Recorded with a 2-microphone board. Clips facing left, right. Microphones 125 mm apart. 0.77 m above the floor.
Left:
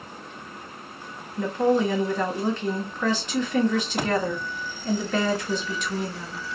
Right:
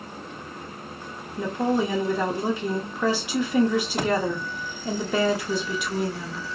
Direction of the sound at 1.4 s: 10° right (ahead or behind).